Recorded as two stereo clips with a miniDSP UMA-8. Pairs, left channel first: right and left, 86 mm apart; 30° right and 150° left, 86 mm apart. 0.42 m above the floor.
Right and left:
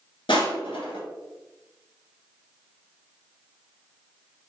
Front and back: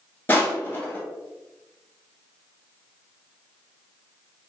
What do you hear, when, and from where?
0.3 s crushing: 100° right, 1.0 m